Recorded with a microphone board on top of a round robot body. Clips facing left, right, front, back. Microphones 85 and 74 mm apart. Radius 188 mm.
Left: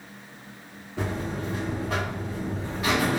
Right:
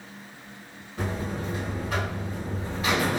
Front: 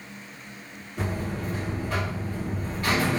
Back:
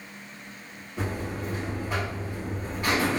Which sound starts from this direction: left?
A buzzer, at 1.0 s.